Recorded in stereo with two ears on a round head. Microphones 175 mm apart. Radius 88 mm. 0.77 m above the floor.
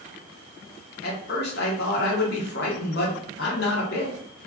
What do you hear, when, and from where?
1.0 s a man speaking: 55° left (ahead or behind), 0.8 m